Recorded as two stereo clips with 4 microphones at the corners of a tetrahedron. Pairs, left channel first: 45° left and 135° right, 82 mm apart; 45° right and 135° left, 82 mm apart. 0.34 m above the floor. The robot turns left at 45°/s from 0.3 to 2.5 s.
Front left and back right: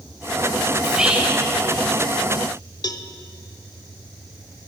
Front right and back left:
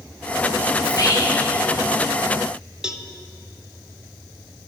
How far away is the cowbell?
About 0.6 m.